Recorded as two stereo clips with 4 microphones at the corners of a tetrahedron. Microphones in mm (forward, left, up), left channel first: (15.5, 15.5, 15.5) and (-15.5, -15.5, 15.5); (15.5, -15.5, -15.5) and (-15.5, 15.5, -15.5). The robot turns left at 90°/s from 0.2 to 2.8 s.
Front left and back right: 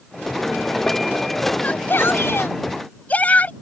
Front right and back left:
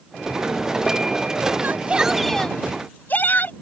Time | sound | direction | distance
1.6 | a shout | 100° left | ?